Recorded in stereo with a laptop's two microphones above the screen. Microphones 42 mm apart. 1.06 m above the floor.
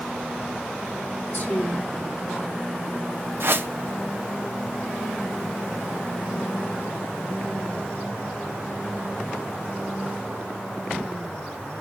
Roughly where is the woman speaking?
Left.